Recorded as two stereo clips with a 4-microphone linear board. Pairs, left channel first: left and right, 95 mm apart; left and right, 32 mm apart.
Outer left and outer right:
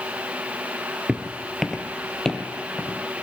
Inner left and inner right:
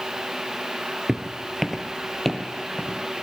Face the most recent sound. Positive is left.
turn(degrees=10)  # may be behind; listen again after turning